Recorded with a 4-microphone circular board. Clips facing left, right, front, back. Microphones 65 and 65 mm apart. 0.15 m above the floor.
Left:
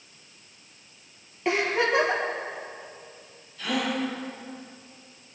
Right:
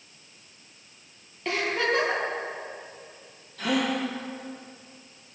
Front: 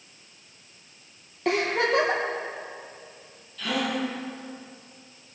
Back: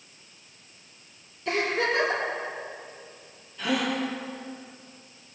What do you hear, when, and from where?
1.4 s a giggle: 15° left, 4 m
3.6 s a gasp: 110° right, 5.5 m